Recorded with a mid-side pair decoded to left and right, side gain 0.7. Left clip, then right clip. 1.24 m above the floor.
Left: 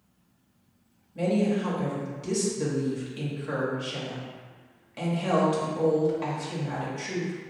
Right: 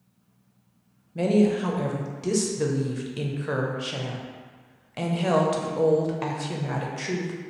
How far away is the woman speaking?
About 0.7 m.